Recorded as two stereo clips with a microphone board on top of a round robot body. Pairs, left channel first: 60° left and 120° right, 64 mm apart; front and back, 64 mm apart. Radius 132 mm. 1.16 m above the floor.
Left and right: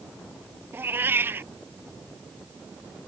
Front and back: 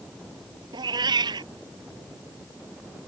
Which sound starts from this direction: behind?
A cat meowing, at 0.7 s.